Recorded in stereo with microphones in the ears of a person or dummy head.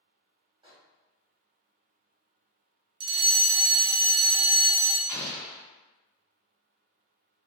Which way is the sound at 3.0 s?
25° right (ahead or behind).